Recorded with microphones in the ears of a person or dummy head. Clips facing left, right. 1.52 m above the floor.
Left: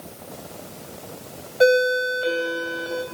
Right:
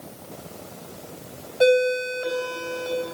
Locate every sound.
1.6 s a ringtone: 10° left (ahead or behind), 3 m